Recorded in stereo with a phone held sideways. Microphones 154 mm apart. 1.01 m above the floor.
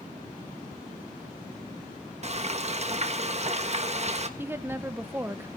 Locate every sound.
2.2 s frying: 45° right (ahead or behind), 1.3 m
4.4 s a woman speaking: 15° right (ahead or behind), 0.8 m